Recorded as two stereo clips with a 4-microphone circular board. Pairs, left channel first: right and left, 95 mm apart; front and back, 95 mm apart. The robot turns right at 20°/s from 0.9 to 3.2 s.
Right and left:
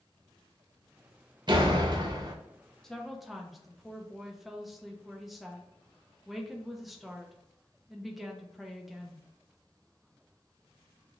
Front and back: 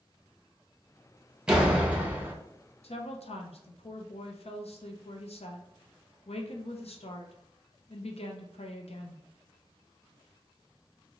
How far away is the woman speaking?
About 0.6 m.